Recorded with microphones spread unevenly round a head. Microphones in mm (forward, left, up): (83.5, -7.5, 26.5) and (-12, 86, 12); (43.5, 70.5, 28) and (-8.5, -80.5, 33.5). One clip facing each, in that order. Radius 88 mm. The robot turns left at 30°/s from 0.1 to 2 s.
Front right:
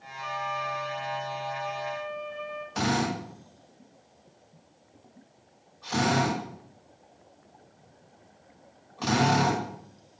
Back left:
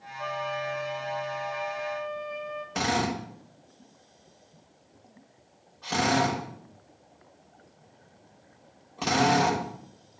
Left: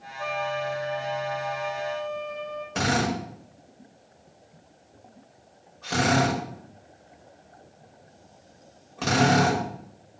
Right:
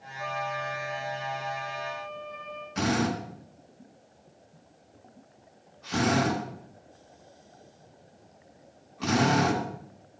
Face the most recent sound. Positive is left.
turn(degrees=105)